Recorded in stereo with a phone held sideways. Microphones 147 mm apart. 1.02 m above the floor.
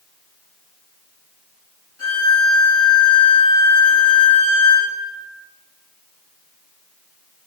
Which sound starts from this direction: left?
A violin, at 2.0 s.